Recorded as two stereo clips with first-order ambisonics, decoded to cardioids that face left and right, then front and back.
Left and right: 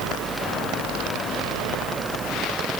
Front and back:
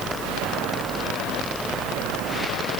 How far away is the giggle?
I don't hear a giggle.